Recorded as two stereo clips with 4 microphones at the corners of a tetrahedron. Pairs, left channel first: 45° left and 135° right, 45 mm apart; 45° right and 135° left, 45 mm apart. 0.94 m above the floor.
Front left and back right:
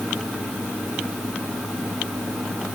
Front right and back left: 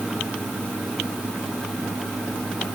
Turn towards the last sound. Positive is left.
No sound to turn to.